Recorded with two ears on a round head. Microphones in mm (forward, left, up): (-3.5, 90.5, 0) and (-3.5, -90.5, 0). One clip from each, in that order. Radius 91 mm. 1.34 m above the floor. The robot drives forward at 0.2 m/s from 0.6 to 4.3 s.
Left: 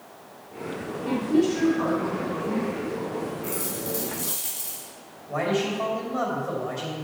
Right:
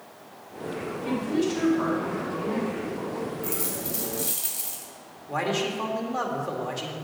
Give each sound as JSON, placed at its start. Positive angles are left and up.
{"t": 1.0, "sound": "a woman speaking", "side_deg": -65, "distance_m": 4.5}
{"t": 3.4, "sound": "a dropped coin", "side_deg": -65, "distance_m": 2.5}
{"t": 5.3, "sound": "a man speaking", "side_deg": -75, "distance_m": 2.0}